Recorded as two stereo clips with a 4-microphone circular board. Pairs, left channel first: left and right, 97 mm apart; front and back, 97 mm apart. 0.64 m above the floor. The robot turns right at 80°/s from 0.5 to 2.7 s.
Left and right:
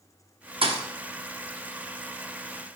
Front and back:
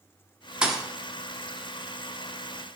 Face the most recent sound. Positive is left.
turn(degrees=65)